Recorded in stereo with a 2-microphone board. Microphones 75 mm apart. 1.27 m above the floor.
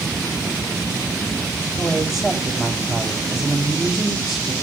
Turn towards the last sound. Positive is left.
turn(degrees=-5)  # may be behind; listen again after turning